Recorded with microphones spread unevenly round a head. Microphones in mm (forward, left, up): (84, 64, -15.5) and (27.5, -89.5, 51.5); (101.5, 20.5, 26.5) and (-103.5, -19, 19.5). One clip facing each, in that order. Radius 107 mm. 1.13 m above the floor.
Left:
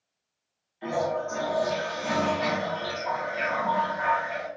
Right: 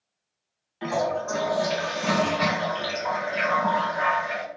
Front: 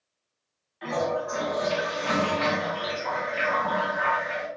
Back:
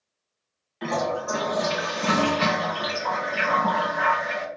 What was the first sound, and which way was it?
A toilet flushing, 145° right.